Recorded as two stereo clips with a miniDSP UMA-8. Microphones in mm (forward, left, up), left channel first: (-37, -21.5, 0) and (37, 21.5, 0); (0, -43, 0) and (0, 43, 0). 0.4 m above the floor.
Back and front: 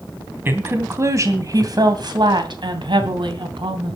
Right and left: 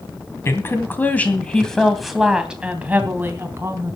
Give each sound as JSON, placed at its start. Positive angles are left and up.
{"t": 0.5, "sound": "a woman speaking", "azimuth_deg": -30, "distance_m": 3.0}